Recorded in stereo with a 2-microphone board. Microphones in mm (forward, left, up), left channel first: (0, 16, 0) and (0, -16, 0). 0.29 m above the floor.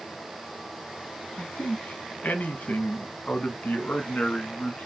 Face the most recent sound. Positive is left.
turn(degrees=35)  # may be behind; listen again after turning